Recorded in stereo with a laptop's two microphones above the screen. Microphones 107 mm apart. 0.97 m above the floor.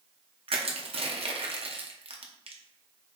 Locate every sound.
0.5 s crushing: 60° right (ahead or behind), 0.6 m